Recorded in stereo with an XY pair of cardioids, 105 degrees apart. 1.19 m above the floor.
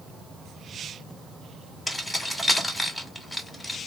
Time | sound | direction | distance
1.9 | keys jangling | 15° left | 2 m